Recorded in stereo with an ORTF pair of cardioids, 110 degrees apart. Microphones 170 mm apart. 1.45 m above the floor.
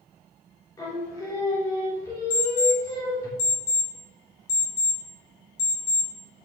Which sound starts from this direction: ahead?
Singing, at 0.8 s.